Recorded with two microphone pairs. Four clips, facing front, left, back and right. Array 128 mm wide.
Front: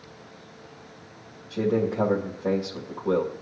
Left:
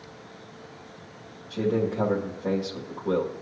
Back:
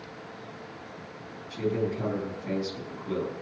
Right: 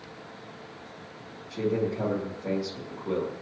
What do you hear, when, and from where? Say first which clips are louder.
1.5 s a man speaking: left 2 dB, front 4 dB; 30° left, 2 m